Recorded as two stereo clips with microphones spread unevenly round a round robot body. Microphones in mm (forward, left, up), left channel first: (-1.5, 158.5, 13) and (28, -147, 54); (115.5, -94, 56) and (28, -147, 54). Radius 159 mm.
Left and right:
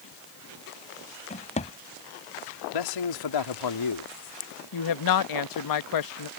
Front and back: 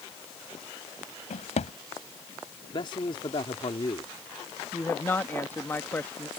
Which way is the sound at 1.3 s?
25° left.